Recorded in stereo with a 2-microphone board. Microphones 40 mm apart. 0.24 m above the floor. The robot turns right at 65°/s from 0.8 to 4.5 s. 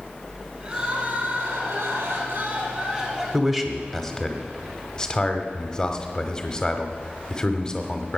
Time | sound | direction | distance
0.6 | crying | 150° right | 4.5 m
3.3 | a man speaking | 5° right (ahead or behind) | 1.1 m